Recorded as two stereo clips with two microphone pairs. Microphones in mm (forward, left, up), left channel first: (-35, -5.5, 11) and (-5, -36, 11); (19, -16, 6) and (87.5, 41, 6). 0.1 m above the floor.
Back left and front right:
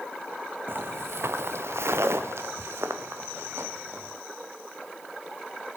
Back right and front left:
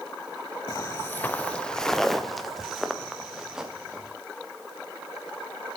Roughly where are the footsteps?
Right.